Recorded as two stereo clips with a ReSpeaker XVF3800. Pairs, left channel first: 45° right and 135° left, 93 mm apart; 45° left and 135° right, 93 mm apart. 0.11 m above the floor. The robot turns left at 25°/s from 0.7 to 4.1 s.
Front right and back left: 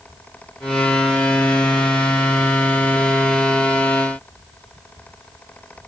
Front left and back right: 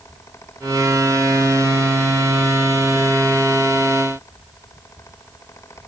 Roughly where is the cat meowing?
I don't hear a cat meowing.